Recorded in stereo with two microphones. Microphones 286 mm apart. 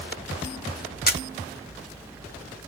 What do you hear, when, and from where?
1.1 s a camera shutter: 35° left (ahead or behind), 1.3 m